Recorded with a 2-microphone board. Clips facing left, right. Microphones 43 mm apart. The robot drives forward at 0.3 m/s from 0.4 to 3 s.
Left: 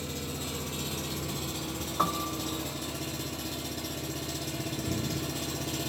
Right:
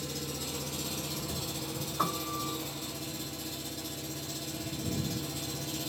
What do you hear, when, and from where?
0.0 s an engine running: 35° left (ahead or behind), 1.1 m; by 5.9 s 65° left (ahead or behind), 0.7 m
2.0 s a piano: 20° left (ahead or behind), 0.6 m